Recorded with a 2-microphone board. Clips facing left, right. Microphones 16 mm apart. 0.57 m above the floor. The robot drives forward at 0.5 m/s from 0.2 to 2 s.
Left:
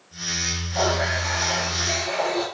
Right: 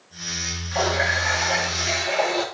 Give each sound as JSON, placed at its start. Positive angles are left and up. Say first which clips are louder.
{"t": 0.7, "sound": "a running tap", "louder": "right 2 dB", "side_deg": -55, "distance_m": 5.5}